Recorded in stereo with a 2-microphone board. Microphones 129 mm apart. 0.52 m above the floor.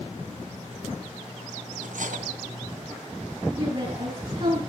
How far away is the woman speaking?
About 5.5 m.